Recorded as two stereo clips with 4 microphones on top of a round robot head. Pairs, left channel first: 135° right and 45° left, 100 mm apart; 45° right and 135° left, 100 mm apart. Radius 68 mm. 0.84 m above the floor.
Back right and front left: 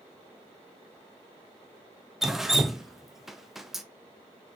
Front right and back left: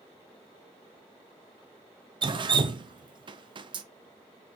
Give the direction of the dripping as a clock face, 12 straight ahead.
8 o'clock.